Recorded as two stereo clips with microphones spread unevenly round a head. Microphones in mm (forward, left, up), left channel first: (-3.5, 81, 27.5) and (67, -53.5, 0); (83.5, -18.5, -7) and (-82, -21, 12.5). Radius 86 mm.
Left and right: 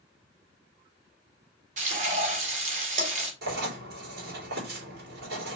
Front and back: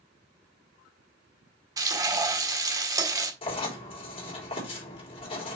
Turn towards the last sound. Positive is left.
turn(degrees=-55)